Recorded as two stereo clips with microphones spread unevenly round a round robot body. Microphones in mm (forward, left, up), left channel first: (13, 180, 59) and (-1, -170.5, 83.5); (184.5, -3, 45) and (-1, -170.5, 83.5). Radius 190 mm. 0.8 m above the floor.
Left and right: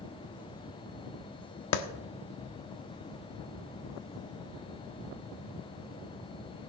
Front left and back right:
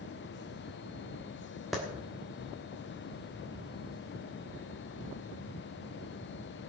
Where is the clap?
130° left, 1.2 m.